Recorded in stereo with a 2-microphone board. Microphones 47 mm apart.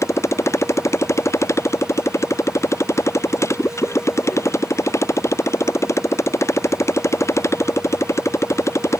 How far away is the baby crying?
No baby crying in this recording.